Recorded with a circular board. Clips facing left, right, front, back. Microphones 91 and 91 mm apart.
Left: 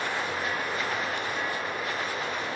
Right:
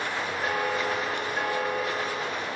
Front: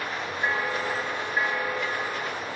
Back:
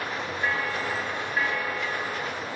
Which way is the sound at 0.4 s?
70° right.